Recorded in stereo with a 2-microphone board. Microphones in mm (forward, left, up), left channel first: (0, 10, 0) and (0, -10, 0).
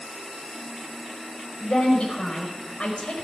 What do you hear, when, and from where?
1.6 s a woman speaking: 55° left (ahead or behind), 4.5 m